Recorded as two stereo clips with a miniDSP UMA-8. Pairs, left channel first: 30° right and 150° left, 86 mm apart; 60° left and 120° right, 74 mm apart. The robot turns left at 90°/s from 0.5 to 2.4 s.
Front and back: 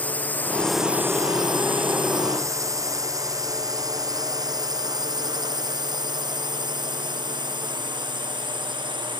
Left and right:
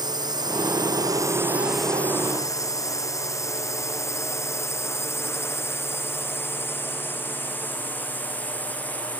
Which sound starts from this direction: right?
A drone, at 0.0 s.